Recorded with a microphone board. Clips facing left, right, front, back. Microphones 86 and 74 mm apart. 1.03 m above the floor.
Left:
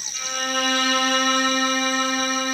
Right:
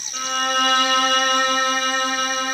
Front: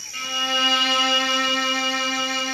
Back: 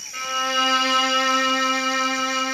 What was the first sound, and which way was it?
A violin, 110° right.